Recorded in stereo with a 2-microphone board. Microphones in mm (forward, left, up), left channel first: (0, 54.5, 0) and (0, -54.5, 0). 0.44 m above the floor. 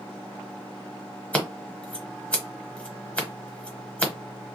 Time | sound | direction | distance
1.3 | scissors | 10° left (ahead or behind) | 1.3 m